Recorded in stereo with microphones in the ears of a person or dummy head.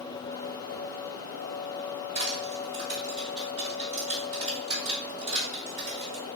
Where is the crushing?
40° right (ahead or behind), 1.7 m.